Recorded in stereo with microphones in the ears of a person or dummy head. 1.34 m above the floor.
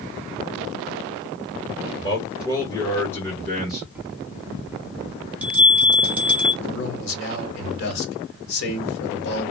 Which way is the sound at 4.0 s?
5° right (ahead or behind).